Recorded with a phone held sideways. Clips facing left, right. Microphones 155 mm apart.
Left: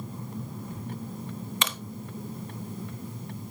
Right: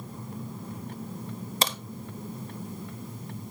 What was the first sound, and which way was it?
A crack, 35° right (ahead or behind).